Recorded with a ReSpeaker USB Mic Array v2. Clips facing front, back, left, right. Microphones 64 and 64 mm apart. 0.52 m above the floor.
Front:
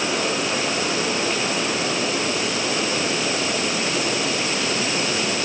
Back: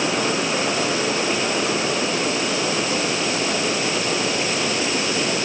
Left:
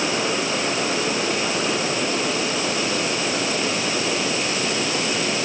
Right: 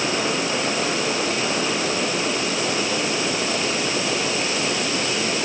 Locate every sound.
Only background noise.